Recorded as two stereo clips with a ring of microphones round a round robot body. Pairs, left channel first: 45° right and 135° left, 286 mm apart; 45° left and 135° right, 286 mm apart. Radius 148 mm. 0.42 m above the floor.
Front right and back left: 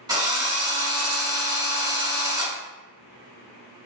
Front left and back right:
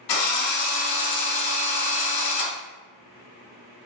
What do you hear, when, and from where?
0.1 s a drill: 55° left, 0.8 m